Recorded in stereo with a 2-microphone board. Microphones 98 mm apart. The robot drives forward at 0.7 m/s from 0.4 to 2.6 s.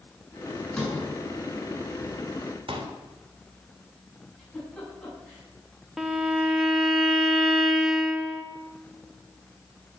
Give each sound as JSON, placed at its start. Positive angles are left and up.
{"t": 0.8, "sound": "a sliding door", "side_deg": 10, "distance_m": 6.5}
{"t": 2.7, "sound": "a pop", "side_deg": -70, "distance_m": 2.5}
{"t": 4.4, "sound": "a giggle", "side_deg": 15, "distance_m": 8.0}
{"t": 6.0, "sound": "a violin", "side_deg": -5, "distance_m": 1.4}